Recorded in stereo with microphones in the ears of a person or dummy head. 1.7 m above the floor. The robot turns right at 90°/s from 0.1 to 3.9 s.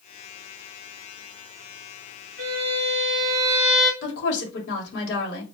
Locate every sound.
2.4 s a violin: 130° right, 2 m; by 3.9 s 5° left, 2 m
4.0 s a woman speaking: 65° left (ahead or behind), 2 m